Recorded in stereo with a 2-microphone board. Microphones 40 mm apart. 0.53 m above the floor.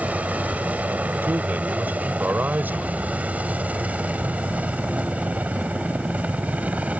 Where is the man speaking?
55° right (ahead or behind).